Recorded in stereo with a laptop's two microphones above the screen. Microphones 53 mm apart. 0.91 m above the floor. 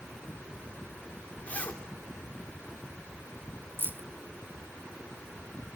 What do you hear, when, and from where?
1.5 s a zipper: 25° left (ahead or behind), 3 m
3.8 s keys jangling: 35° right (ahead or behind), 0.7 m